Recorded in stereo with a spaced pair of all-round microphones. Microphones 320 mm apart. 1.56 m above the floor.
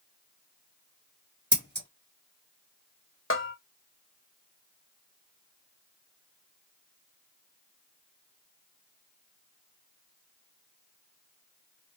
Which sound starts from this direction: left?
A bell, at 3.3 s.